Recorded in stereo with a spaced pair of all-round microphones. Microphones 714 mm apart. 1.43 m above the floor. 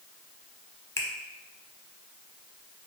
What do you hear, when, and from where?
1.0 s a finger snap: 5° left (ahead or behind), 0.7 m